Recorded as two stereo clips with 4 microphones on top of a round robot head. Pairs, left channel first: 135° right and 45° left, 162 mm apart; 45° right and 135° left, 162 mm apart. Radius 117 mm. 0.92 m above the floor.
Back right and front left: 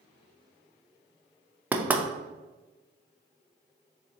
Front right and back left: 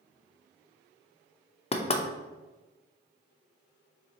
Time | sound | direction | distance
1.7 | knocking | 30° right | 0.6 m